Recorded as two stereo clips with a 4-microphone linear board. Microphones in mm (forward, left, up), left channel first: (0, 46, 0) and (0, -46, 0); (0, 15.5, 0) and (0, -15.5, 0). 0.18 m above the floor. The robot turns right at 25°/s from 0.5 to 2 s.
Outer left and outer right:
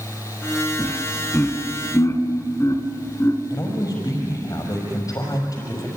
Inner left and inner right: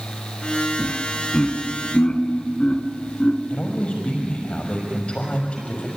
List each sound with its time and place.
0.8 s laughter: 15° left (ahead or behind), 2.5 m; by 3.4 s 35° left (ahead or behind), 2.5 m
3.5 s a man speaking: 45° left (ahead or behind), 6 m